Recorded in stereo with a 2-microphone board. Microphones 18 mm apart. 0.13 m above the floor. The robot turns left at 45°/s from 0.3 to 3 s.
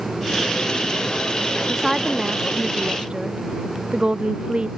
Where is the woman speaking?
Straight ahead; by 4.7 s 60° right.